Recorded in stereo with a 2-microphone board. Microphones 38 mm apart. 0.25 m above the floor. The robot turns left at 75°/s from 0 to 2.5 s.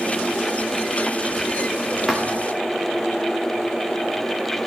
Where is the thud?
5° right (ahead or behind), 6.5 m; by 2.4 s 25° right (ahead or behind), 6.5 m.